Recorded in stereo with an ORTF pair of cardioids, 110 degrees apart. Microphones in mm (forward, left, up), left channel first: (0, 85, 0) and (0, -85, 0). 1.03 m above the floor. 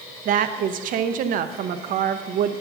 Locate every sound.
0.2 s a woman speaking: 60° right, 0.6 m